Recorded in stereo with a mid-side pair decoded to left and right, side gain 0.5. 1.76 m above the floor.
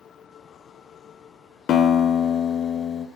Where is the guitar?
60° left, 1.1 m.